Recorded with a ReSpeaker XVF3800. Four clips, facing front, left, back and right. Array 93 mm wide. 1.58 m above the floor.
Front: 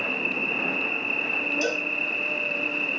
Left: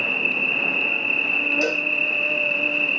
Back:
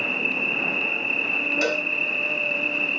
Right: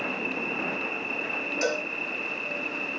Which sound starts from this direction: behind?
A cowbell, at 1.6 s.